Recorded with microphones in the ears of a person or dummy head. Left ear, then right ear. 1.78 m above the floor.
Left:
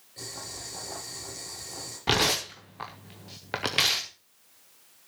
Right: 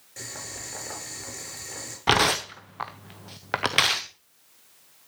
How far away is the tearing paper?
About 0.7 m.